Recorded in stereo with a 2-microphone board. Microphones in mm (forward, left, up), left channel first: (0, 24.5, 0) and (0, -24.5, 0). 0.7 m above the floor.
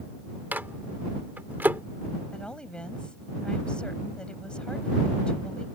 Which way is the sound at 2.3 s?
20° left (ahead or behind).